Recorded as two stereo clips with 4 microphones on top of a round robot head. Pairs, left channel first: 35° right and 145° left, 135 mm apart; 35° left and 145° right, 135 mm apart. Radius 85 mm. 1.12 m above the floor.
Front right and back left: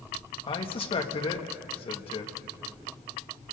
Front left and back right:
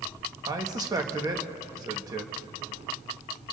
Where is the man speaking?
85° right, 1.5 m.